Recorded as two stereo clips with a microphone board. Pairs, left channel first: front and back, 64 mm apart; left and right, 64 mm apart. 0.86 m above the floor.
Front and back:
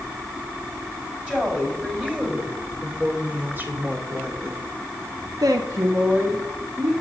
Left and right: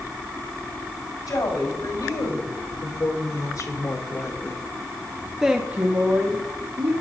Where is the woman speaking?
105° left, 4.5 m; by 7.0 s 110° right, 2.0 m.